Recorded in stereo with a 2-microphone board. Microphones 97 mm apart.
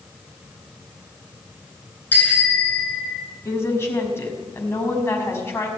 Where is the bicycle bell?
20° left (ahead or behind), 6.5 m; by 3.2 s 5° left (ahead or behind), 6.5 m.